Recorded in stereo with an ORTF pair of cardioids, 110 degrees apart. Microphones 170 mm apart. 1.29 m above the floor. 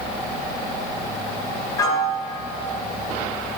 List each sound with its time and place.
1.8 s a piano: 20° left, 1.6 m